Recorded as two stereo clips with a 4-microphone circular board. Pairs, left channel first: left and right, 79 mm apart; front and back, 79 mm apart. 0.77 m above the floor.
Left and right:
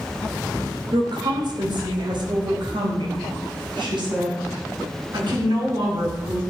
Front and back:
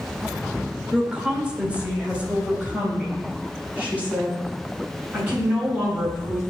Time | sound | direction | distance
0.9 | a woman speaking | 105° right | 2 m